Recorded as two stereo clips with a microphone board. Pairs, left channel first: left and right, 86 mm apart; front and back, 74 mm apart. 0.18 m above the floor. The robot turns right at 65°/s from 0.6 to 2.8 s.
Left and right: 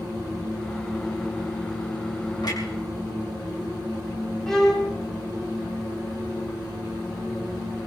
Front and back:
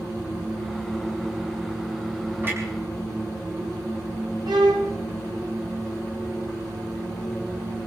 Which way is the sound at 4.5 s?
175° left.